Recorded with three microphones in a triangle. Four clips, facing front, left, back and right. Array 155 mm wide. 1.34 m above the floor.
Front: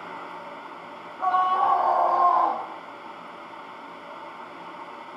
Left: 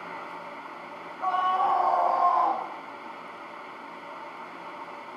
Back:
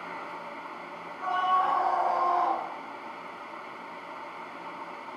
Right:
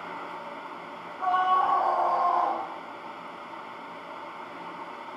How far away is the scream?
About 5.5 m.